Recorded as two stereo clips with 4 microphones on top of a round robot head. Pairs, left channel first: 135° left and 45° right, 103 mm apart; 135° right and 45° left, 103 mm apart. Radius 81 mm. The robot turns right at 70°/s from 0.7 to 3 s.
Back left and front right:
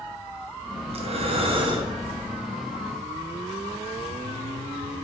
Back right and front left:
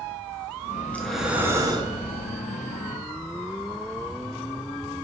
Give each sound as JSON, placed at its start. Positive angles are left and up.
{"t": 0.9, "sound": "breathing", "azimuth_deg": -65, "distance_m": 0.6}